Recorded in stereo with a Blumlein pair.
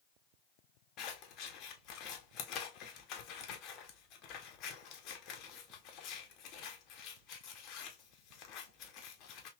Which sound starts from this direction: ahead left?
Scissors, at 1.0 s.